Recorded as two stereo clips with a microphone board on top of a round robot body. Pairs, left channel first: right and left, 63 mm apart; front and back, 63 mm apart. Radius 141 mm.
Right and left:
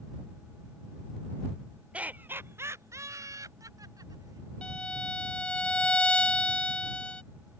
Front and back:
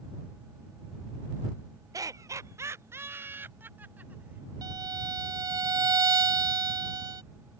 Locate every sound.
1.9 s laughter: 160° left; by 4.5 s 115° left
4.6 s a violin: 165° right